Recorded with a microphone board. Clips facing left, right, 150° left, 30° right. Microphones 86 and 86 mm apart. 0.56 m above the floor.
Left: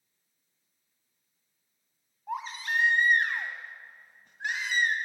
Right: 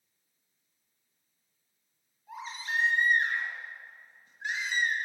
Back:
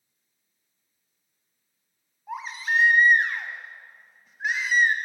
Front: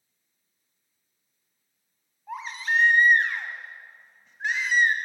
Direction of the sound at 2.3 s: 65° left.